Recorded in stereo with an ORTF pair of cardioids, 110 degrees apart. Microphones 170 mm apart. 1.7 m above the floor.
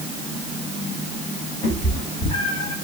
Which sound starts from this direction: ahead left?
A cat meowing, at 1.6 s.